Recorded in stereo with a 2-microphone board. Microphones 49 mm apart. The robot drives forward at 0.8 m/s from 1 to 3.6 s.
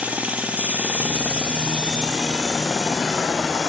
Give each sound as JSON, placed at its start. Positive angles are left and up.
{"t": 0.0, "sound": "running water", "side_deg": -30, "distance_m": 1.3}